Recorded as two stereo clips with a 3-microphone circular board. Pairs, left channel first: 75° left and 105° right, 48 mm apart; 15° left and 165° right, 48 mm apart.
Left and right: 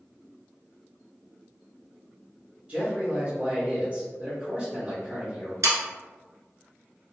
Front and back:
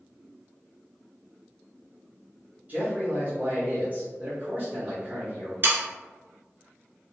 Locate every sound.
2.7 s a man speaking: 150° right, 1.2 m
5.6 s sawing: 120° right, 0.8 m